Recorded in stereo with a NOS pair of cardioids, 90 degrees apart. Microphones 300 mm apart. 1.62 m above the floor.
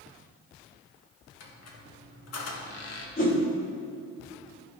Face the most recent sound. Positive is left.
turn(degrees=30)